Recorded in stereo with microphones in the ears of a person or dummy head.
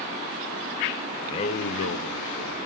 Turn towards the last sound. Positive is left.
turn(degrees=45)  # may be behind; listen again after turning